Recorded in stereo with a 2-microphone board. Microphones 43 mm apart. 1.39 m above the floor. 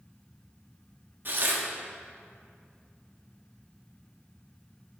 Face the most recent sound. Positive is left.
turn(degrees=-50)  # may be behind; listen again after turning